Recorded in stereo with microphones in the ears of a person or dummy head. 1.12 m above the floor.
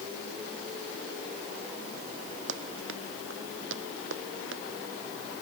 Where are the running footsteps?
85° right; by 4.6 s 80° right.